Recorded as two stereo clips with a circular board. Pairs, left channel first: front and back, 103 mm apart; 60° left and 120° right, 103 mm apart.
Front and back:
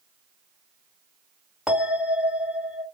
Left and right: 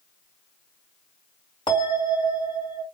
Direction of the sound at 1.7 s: 95° left.